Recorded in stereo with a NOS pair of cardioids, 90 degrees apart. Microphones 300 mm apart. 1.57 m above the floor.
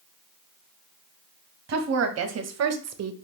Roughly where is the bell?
I don't hear a bell.